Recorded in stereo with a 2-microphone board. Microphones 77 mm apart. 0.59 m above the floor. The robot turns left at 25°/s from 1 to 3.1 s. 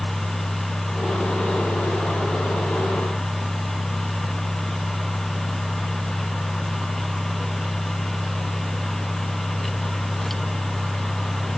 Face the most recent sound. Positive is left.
No sound to turn to.